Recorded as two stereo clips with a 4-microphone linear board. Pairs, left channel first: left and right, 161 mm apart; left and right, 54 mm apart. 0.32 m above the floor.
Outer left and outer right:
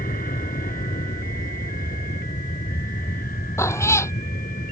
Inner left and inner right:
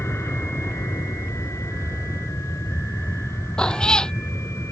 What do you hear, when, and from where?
0.0 s an aircraft: 60° left (ahead or behind)
3.6 s a cat meowing: 15° left (ahead or behind)